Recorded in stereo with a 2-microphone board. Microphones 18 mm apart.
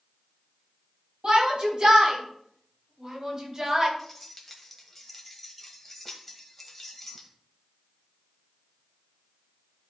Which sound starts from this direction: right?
A shout, at 1.2 s.